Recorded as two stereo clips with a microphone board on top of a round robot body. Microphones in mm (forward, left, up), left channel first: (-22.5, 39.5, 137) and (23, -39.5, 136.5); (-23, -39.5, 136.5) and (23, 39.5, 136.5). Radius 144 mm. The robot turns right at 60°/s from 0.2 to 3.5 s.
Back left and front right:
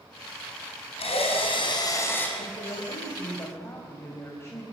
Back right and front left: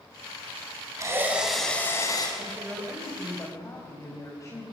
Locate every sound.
1.0 s a drill: 115° left, 5 m; by 2.3 s 165° right, 5 m
2.4 s a woman speaking: 115° left, 4 m; by 4.6 s 175° right, 4 m